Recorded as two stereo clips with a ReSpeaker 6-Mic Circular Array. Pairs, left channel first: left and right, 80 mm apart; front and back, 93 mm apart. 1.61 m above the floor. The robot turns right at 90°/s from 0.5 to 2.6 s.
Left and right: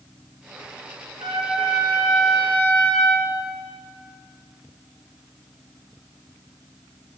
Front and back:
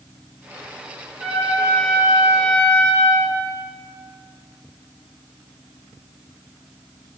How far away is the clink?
No clink in this recording.